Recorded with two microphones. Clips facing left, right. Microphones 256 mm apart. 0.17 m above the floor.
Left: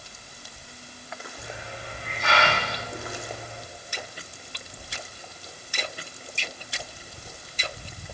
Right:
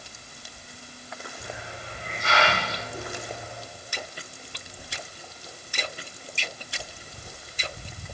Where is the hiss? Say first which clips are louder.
Left 1 dB; 70° left (ahead or behind), 8 m.